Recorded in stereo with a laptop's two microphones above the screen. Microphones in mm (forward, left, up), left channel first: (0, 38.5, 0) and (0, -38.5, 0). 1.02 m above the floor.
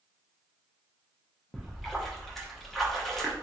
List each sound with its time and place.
1.5 s a splash: 5° left (ahead or behind), 0.8 m